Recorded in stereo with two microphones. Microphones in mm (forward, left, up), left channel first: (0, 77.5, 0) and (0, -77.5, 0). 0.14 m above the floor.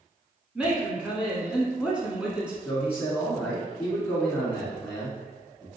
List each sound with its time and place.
0.6 s a woman speaking: 5° right (ahead or behind), 1.1 m
2.6 s a man speaking: 15° left (ahead or behind), 1.5 m